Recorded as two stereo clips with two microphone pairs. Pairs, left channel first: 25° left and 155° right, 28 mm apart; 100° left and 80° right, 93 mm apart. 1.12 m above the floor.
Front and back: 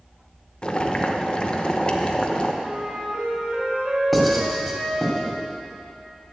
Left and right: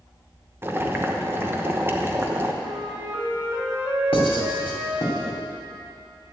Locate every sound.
0.6 s boiling: 20° right, 1.0 m
2.6 s a flute: 135° right, 2.5 m
4.1 s writing: 115° left, 2.5 m